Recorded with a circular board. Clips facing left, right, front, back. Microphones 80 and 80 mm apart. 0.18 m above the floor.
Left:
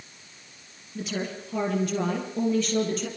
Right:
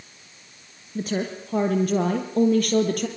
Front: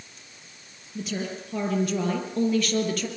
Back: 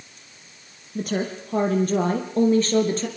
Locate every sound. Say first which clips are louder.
0.9 s a woman speaking: right 5 dB, back 5 dB; 140° right, 3.5 m; by 3.1 s 120° right, 4 m